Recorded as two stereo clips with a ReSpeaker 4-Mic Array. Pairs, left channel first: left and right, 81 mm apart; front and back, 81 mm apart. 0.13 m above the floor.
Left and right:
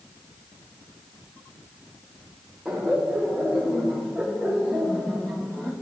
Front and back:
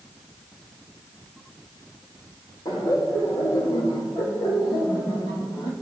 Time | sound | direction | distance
2.6 | laughter | 5° right | 7 m